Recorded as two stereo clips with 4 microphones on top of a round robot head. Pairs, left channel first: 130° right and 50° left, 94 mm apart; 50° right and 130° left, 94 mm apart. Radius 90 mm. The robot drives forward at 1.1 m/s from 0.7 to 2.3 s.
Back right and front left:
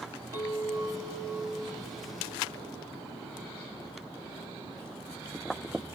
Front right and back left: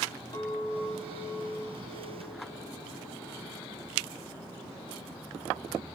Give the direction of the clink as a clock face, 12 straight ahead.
12 o'clock.